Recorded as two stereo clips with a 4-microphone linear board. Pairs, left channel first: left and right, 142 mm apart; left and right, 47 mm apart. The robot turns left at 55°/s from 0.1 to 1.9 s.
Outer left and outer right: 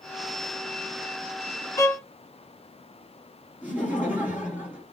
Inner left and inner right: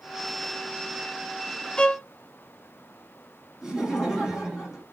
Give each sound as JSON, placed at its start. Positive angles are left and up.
{"t": 1.8, "sound": "a violin", "side_deg": 25, "distance_m": 0.5}
{"t": 3.6, "sound": "laughter", "side_deg": -10, "distance_m": 2.0}